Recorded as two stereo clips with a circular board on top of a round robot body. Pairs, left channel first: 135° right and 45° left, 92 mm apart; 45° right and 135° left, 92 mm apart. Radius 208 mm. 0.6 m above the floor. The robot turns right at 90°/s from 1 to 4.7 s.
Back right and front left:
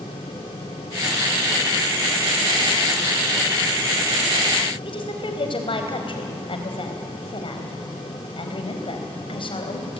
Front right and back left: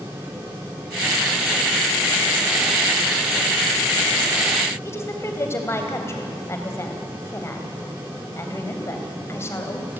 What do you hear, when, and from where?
4.8 s a woman speaking: 110° right, 3.5 m